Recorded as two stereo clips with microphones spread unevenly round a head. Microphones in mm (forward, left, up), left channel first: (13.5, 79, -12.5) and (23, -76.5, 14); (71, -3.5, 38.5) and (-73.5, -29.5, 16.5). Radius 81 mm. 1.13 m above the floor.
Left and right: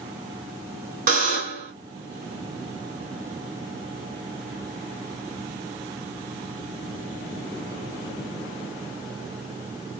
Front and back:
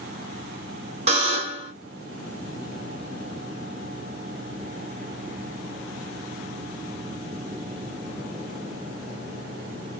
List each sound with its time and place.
1.1 s a buzzer: 120° right, 2.5 m